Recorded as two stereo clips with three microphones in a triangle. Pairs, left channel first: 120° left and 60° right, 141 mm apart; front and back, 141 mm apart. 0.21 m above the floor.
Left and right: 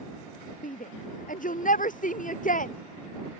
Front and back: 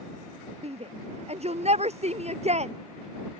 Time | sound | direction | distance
0.6 | a shout | 140° left | ?